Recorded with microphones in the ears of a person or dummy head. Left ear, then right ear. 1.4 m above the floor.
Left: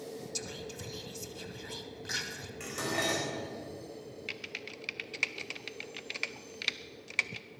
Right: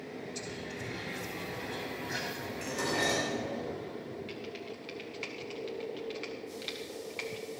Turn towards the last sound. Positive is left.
turn(degrees=55)  # may be behind; listen again after turning